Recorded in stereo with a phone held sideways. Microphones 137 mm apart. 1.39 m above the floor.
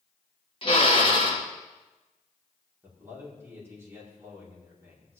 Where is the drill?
40° left (ahead or behind), 1.8 m.